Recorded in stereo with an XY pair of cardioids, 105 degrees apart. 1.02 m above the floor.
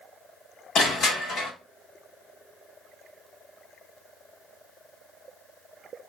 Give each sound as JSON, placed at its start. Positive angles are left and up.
{"t": 0.8, "sound": "crushing", "azimuth_deg": 65, "distance_m": 1.5}